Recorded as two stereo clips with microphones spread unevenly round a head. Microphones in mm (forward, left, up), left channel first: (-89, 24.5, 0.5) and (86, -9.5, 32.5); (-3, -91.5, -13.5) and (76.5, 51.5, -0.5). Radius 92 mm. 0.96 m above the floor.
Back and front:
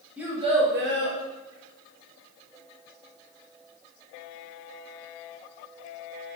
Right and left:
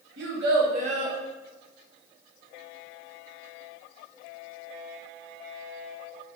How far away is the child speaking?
About 0.7 m.